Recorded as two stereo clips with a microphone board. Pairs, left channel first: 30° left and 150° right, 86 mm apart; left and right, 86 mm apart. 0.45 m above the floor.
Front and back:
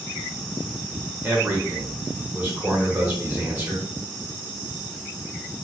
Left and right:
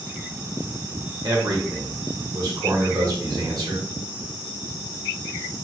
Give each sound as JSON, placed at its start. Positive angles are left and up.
{"t": 1.2, "sound": "a man speaking", "azimuth_deg": -90, "distance_m": 1.6}